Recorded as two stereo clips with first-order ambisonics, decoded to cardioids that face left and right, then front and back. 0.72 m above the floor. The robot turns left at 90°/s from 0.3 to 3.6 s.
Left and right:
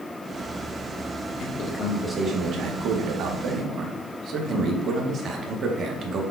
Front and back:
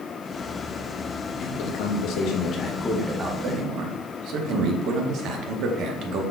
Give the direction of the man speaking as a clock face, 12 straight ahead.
10 o'clock.